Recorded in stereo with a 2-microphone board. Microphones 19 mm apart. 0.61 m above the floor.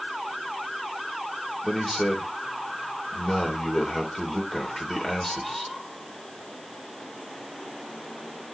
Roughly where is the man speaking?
Left.